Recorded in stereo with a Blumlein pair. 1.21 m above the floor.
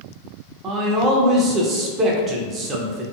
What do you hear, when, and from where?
0.6 s a man speaking: 25° right, 0.6 m